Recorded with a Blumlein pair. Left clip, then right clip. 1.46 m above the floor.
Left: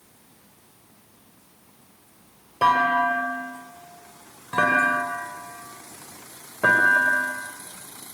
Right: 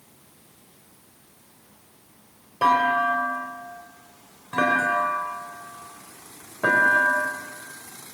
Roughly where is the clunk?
Ahead.